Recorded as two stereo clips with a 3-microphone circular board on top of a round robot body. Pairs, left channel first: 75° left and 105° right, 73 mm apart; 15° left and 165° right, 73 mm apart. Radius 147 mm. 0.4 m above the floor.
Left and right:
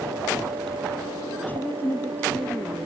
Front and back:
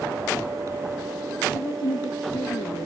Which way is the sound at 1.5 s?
10° left.